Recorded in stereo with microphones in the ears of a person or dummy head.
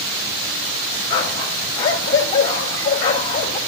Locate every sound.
1.1 s a dog barking: 20° left (ahead or behind), 1.0 m